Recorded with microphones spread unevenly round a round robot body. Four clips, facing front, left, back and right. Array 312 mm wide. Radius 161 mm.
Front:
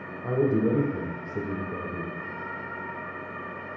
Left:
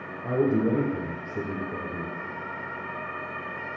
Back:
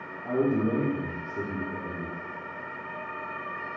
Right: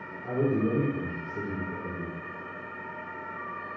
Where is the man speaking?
25° left, 1.4 m.